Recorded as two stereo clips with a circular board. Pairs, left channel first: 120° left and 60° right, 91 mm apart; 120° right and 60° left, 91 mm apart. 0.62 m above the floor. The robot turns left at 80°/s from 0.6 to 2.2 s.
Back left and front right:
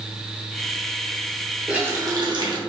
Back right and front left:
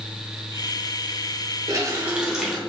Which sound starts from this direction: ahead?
A running tap, at 1.7 s.